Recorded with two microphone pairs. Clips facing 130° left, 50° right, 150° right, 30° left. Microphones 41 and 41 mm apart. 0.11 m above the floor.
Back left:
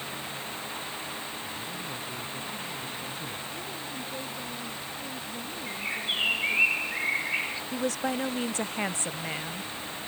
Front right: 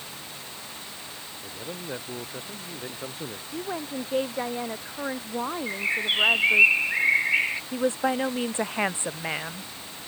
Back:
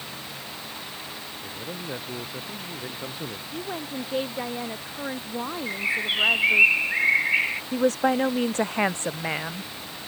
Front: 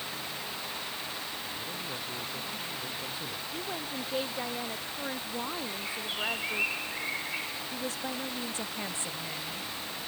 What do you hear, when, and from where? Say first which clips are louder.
1.4 s a man speaking: even, back 3 dB; 90° right
3.5 s a woman speaking: front right 5 dB, back 5 dB; 75° right
5.7 s a bird: front right 3 dB, back 10 dB; 110° right
7.7 s a woman speaking: front right 4 dB, back 16 dB; 115° right